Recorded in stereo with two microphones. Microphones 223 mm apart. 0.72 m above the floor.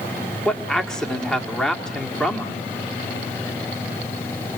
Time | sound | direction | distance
0.5 | a man speaking | 5° left (ahead or behind) | 1.8 m